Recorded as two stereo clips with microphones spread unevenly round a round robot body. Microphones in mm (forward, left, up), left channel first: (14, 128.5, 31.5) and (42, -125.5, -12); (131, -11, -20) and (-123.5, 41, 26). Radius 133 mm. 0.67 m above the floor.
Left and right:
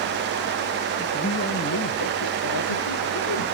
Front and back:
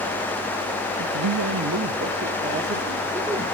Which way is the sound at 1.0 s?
Straight behind.